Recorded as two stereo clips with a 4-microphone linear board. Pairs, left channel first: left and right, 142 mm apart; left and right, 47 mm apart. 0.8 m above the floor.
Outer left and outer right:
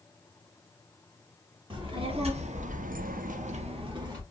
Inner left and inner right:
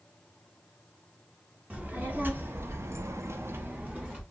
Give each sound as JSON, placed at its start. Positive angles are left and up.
{"t": 1.7, "sound": "a child speaking", "side_deg": -35, "distance_m": 1.0}